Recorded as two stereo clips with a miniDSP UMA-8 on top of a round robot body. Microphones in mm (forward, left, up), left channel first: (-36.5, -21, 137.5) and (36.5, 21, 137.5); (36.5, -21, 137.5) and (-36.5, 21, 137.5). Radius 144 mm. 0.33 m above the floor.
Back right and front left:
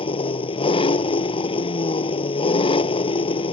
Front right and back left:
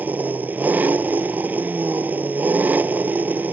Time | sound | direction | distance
0.0 | an engine running | 140° right | ?